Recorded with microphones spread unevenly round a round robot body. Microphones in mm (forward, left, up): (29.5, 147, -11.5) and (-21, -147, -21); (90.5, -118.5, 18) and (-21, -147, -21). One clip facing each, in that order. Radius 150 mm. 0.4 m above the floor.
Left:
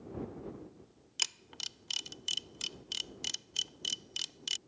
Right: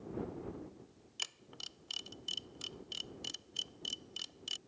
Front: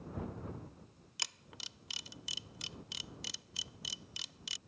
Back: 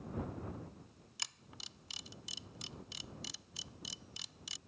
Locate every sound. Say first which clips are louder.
1.2 s a camera shutter: left 2 dB, front 4 dB; 50° left